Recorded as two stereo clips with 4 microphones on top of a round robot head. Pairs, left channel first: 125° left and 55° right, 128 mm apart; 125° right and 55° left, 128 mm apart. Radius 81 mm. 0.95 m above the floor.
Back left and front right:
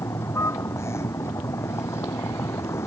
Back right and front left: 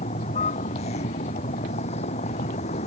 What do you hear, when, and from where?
0.0 s a vehicle: 165° right